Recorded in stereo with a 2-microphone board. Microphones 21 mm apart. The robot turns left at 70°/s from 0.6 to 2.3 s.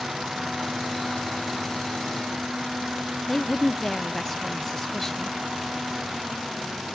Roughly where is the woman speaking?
Left.